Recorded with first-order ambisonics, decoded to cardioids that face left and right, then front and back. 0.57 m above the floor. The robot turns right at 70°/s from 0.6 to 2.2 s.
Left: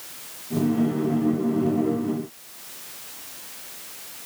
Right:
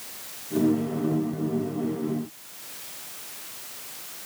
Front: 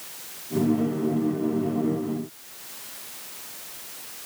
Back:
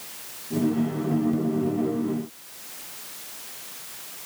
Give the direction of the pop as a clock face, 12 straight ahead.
No pop in this recording.